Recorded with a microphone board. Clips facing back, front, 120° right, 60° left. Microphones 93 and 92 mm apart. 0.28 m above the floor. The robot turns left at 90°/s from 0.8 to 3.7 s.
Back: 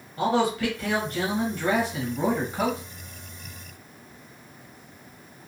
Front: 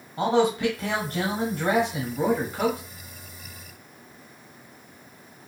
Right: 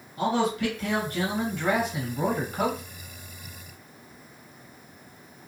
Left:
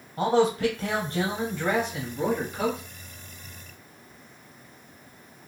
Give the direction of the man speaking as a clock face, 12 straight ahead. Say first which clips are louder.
Front 2 dB, left 3 dB; 10 o'clock.